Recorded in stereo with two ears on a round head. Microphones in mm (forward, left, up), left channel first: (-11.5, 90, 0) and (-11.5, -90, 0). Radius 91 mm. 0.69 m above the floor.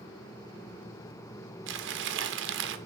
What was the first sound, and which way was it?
Crumpling, 60° right (ahead or behind).